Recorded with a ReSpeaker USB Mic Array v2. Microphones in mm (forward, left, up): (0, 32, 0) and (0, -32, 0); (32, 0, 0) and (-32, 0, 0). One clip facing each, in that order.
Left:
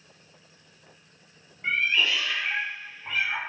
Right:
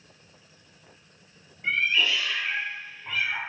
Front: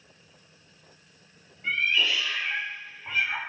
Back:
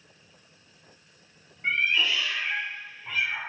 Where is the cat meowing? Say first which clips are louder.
Even, back 1 dB; 150° left, 1.4 m; by 3.4 s 20° left, 1.1 m.